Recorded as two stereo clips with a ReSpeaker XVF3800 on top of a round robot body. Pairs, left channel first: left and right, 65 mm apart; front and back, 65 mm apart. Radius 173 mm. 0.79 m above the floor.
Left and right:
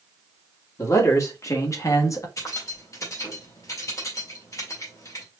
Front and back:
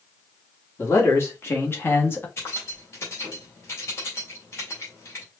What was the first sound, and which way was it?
A man speaking, 50° left.